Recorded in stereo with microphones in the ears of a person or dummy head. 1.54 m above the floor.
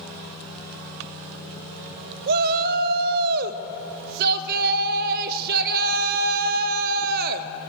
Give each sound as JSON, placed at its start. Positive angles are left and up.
{"t": 2.3, "sound": "a shout", "side_deg": -50, "distance_m": 0.6}